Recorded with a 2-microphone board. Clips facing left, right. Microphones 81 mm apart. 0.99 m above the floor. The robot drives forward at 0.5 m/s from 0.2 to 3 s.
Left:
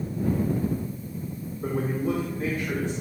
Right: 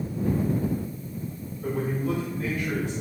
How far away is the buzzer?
I don't hear a buzzer.